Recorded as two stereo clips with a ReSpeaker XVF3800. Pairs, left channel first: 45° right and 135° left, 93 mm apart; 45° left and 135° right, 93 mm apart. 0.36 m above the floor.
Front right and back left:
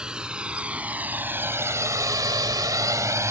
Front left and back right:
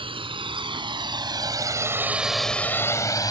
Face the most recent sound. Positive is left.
turn(degrees=80)